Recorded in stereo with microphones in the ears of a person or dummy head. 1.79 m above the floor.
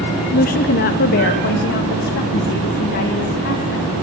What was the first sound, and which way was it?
A woman speaking, 45° left (ahead or behind).